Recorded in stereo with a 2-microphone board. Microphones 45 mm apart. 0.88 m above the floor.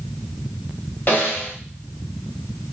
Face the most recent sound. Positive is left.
turn(degrees=45)  # may be behind; listen again after turning